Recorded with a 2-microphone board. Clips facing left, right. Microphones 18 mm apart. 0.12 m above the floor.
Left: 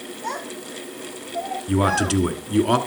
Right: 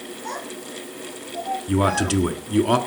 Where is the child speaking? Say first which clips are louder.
Left 3 dB; 75° left (ahead or behind), 7 m; by 2.2 s 65° left (ahead or behind), 5.5 m.